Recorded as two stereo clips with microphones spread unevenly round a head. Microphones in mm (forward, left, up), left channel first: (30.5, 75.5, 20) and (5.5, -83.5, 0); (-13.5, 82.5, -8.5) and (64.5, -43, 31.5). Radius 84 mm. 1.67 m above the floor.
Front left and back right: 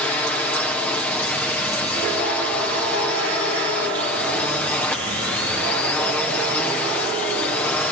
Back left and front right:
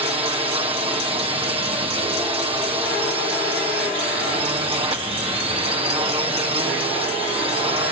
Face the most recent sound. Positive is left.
turn(degrees=0)